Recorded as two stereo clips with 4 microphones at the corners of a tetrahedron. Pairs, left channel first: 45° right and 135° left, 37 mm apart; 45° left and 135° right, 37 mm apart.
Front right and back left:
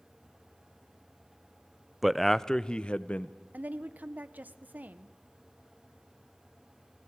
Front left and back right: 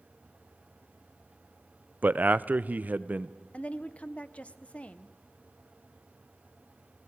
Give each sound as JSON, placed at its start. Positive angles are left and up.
{"t": 2.0, "sound": "a man speaking", "azimuth_deg": -140, "distance_m": 0.6}
{"t": 3.5, "sound": "a woman speaking", "azimuth_deg": 95, "distance_m": 1.0}